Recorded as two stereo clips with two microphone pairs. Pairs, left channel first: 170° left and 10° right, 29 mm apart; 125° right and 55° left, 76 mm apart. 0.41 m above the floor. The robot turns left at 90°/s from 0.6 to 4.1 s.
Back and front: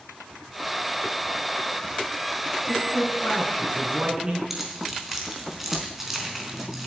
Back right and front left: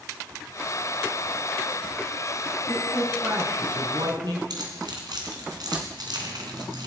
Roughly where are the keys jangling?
Left.